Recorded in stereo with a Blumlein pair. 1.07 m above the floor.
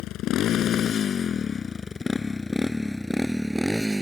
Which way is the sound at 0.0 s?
35° left.